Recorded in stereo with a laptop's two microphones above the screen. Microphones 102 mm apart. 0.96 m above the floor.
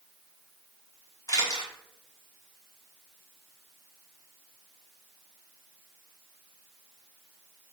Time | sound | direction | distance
1.3 | a camera shutter | 40° left (ahead or behind) | 1.5 m